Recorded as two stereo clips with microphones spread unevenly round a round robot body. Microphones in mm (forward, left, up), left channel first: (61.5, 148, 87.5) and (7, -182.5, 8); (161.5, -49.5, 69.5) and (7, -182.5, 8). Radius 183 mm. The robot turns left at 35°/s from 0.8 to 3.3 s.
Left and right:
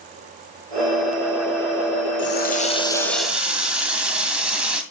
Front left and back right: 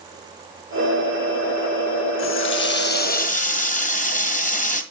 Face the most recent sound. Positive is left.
turn(degrees=-20)